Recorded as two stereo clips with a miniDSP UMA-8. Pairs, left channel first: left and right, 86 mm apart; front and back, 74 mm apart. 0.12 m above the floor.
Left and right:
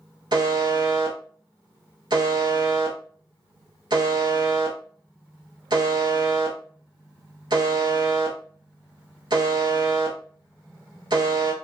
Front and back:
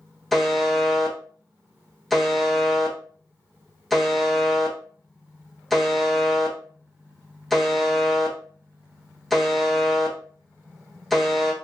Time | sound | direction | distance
0.3 | a buzzer | 85° right | 0.7 m